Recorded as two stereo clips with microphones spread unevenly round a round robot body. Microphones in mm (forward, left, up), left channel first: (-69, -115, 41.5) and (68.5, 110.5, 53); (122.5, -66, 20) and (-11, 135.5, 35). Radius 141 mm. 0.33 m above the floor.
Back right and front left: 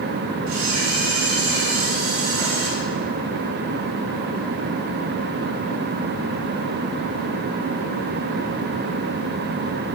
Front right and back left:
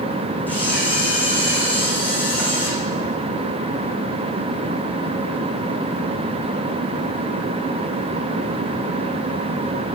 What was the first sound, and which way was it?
A camera shutter, 25° left.